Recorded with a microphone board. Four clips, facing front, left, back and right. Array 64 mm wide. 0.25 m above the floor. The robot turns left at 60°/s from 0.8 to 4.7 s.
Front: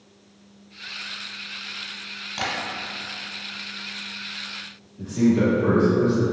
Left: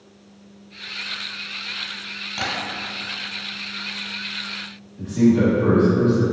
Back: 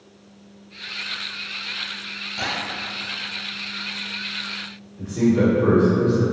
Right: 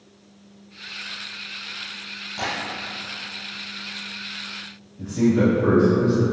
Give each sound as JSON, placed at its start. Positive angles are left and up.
{"t": 2.4, "sound": "tapping", "azimuth_deg": 50, "distance_m": 1.0}
{"t": 5.0, "sound": "a man speaking", "azimuth_deg": 85, "distance_m": 1.7}